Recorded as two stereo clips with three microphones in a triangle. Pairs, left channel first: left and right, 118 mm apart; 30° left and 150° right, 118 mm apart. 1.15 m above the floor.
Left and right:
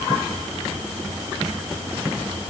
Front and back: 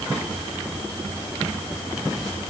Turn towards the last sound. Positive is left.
No sound to turn to.